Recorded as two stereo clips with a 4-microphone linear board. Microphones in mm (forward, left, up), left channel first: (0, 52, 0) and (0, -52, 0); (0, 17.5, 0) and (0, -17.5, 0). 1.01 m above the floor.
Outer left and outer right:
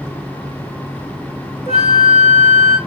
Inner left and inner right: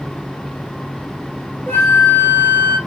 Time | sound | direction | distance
1.7 | a flute | 80° left | 1.5 m